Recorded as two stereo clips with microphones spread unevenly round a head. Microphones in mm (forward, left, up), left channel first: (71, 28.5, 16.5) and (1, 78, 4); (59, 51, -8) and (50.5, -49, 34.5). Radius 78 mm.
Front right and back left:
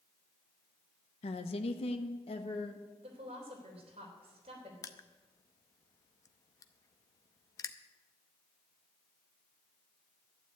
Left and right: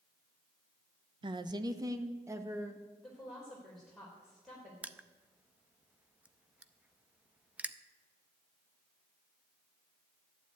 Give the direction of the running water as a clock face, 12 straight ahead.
I don't hear running water.